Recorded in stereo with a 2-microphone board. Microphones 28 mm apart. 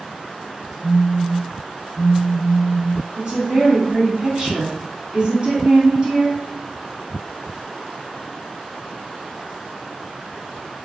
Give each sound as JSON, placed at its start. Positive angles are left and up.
{"t": 0.8, "sound": "a phone buzzing", "side_deg": -35, "distance_m": 1.6}
{"t": 3.2, "sound": "a woman speaking", "side_deg": -40, "distance_m": 1.6}